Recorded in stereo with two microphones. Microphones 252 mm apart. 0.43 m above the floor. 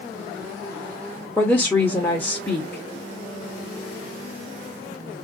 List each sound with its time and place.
1.4 s a woman speaking: 5° left (ahead or behind), 1.0 m